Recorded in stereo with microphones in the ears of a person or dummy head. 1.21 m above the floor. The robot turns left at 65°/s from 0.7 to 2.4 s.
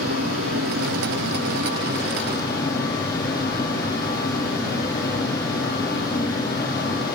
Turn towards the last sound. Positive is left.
turn(degrees=170)